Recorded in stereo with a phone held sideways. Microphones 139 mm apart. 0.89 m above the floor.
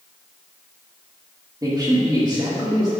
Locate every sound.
1.6 s a man speaking: 25° right (ahead or behind), 1.6 m